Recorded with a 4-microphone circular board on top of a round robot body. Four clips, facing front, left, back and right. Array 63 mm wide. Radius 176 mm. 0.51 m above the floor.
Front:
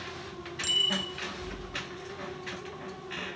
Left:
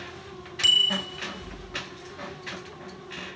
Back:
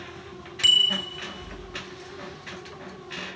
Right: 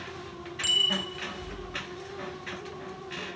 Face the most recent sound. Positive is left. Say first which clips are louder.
# left 4 dB, back 7 dB
turn(degrees=160)